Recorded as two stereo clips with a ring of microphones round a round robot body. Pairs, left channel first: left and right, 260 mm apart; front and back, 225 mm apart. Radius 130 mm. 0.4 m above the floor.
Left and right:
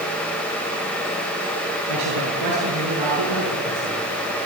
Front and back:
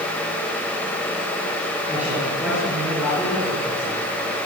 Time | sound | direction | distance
1.9 | a man speaking | 95° right | 7.5 m